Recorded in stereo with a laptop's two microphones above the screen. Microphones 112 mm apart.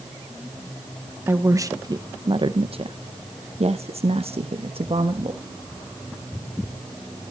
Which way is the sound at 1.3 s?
20° right (ahead or behind).